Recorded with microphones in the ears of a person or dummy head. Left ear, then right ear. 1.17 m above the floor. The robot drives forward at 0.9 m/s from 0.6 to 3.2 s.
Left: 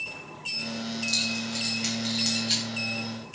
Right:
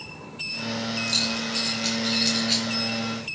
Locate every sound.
1.1 s keys jangling: 25° right (ahead or behind), 3.5 m; by 2.6 s 15° right (ahead or behind), 5 m